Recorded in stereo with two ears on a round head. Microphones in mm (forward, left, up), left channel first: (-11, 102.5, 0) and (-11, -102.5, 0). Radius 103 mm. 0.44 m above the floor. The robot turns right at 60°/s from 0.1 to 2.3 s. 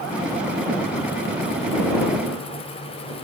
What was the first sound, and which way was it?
Only background noise.